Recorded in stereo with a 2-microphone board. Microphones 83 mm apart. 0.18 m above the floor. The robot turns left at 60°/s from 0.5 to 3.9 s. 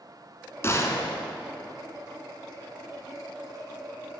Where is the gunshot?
140° left, 1.3 m; by 1.2 s 105° left, 1.3 m.